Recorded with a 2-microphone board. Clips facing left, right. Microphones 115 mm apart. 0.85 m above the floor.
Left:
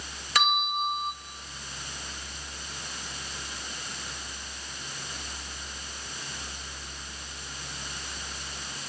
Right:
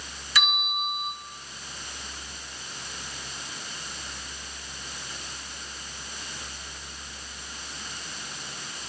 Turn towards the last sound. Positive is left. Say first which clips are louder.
# left 4 dB
turn(degrees=55)  # may be behind; listen again after turning